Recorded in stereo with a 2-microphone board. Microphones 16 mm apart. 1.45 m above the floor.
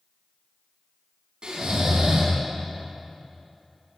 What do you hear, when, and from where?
1.4 s snoring: 60° right (ahead or behind), 4.5 m